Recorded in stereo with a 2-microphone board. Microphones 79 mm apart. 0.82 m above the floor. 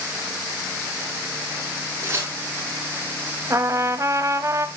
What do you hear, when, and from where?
2.0 s tearing paper: 35° right (ahead or behind), 5 m
3.5 s a trumpet: 40° right (ahead or behind), 0.8 m